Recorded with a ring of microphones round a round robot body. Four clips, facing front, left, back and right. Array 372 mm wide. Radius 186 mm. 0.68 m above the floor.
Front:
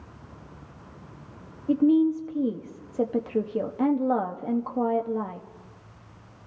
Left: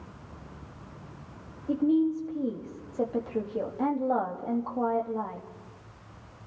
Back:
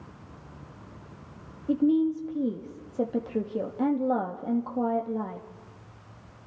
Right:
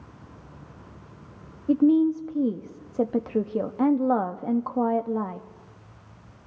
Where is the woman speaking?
70° right, 1.2 m.